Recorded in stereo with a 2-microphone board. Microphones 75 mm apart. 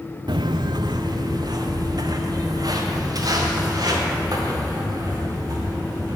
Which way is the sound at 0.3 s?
80° right.